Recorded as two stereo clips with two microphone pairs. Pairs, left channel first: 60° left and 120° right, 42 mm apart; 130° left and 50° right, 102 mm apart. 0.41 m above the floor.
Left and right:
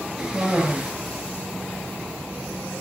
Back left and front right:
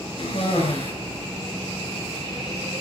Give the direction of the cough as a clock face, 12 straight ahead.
7 o'clock.